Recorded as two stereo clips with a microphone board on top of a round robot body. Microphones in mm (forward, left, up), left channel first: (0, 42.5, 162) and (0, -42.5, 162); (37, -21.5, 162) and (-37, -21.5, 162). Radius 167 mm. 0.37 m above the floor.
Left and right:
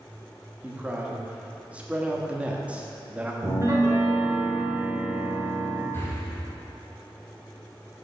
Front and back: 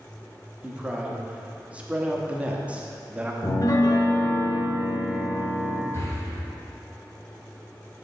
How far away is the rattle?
No rattle in this recording.